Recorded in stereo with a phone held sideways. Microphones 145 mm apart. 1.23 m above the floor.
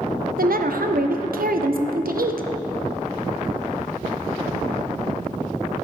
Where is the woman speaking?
85° right, 0.5 m.